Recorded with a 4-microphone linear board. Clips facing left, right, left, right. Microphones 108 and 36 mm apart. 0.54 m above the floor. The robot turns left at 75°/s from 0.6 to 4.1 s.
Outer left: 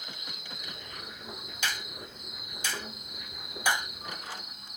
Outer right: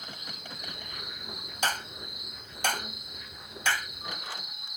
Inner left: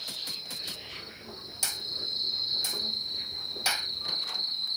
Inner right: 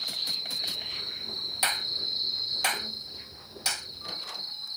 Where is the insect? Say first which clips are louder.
Outer right 2 dB, inner right 5 dB; 50° right; by 4.8 s 45° left.